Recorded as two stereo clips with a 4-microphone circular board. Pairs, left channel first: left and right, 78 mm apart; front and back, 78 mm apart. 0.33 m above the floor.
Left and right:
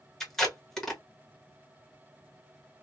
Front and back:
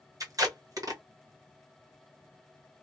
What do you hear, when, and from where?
0.2 s tape being pulled: 175° left, 1.5 m